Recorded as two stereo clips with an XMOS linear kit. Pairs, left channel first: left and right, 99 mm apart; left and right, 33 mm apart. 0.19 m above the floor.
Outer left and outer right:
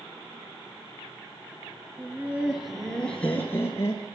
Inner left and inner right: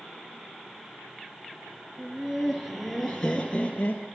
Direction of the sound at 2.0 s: 20° right (ahead or behind).